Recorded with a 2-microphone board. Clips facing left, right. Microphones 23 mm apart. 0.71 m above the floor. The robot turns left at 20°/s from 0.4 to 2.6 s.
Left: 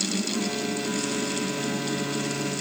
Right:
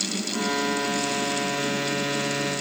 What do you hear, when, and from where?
Only background noise.